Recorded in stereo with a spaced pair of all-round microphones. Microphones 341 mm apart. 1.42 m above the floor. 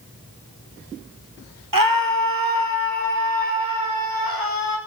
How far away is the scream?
About 1.8 m.